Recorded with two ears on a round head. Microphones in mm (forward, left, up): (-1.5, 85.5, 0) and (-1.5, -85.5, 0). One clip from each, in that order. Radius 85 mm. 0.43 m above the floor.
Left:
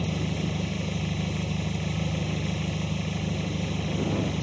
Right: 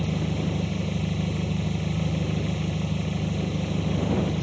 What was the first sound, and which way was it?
An engine running, 25° left (ahead or behind).